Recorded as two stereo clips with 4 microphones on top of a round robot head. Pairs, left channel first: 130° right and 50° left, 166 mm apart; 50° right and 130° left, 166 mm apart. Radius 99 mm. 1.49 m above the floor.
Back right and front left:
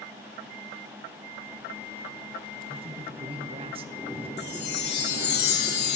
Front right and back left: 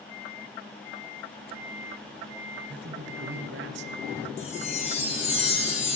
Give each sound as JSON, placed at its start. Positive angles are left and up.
{"t": 2.7, "sound": "a man speaking", "azimuth_deg": 105, "distance_m": 0.8}
{"t": 4.4, "sound": "a chime", "azimuth_deg": -105, "distance_m": 2.0}